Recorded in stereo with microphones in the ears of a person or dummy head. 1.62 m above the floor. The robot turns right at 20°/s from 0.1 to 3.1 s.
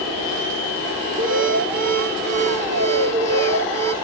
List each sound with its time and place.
1.2 s an alarm: 70° right, 2.5 m; by 3.9 s 30° right, 2.5 m